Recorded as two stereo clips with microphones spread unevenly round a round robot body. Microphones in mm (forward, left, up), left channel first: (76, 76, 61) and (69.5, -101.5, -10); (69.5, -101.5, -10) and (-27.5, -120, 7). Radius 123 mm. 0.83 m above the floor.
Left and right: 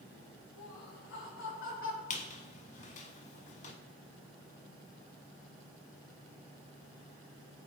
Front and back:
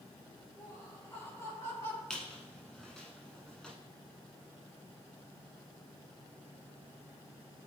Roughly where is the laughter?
Left.